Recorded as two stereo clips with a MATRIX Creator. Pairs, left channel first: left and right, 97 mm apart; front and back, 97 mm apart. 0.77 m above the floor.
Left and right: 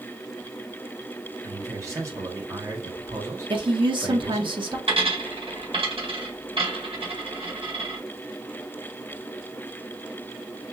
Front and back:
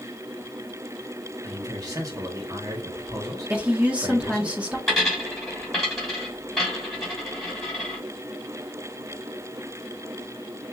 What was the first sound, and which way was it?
A man speaking, 140° right.